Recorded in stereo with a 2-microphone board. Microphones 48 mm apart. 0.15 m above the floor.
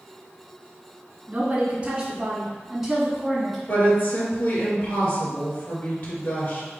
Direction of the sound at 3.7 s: 45° left (ahead or behind).